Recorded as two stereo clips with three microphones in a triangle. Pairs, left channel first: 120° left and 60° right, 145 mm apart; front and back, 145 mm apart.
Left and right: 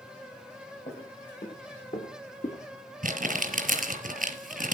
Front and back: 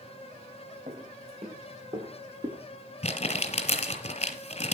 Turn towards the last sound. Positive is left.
turn(degrees=-40)